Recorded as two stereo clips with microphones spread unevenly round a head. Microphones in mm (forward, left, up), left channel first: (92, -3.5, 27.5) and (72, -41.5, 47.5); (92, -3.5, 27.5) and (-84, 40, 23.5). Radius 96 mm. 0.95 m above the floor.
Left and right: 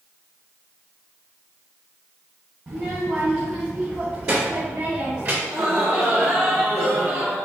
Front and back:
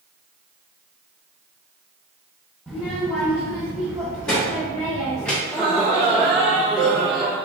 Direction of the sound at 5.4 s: 105° right.